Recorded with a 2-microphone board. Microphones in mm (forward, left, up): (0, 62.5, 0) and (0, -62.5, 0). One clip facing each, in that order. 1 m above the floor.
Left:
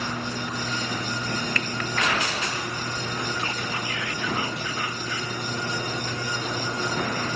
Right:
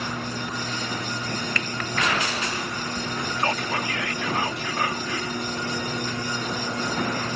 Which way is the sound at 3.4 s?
75° right (ahead or behind).